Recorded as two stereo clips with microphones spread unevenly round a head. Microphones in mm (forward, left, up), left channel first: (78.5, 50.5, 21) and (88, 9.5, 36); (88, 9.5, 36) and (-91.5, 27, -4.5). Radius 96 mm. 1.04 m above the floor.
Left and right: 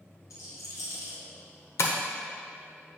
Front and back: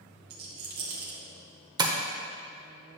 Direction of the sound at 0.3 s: 140° left.